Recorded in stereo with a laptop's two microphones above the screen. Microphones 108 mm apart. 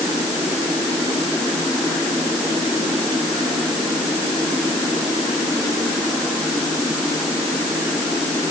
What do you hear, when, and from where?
Only background noise.